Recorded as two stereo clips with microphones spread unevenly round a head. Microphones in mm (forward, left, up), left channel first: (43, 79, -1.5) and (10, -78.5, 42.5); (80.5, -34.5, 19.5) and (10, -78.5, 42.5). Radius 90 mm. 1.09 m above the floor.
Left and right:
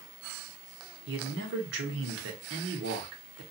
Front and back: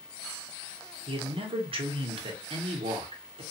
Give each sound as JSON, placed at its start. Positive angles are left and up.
{"t": 1.1, "sound": "a man speaking", "azimuth_deg": -135, "distance_m": 0.8}